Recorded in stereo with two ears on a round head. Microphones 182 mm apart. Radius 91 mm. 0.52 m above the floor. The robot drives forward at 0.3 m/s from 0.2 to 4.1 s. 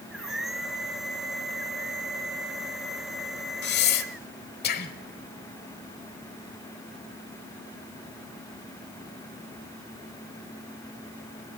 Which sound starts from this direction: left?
Breathing, at 3.6 s.